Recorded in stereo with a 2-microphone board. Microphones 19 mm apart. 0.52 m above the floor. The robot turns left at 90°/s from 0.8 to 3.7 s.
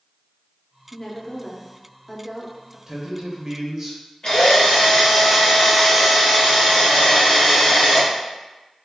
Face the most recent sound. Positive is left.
turn(degrees=50)  # may be behind; listen again after turning